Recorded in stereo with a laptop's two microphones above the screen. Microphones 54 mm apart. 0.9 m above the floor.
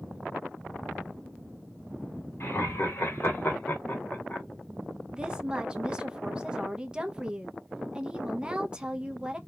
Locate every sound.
2.4 s laughter: 50° left (ahead or behind), 1.6 m; by 4.5 s 20° left (ahead or behind), 0.8 m
5.1 s a woman speaking: 15° right (ahead or behind), 0.6 m